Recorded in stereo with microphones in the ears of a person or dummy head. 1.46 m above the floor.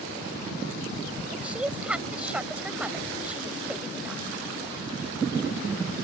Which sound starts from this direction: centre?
A woman speaking, at 1.3 s.